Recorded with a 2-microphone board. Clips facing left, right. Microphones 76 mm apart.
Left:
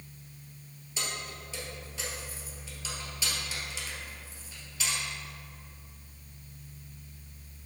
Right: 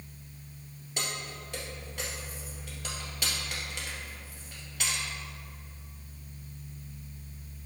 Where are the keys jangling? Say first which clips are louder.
Right 1 dB; 55° right (ahead or behind), 2 m.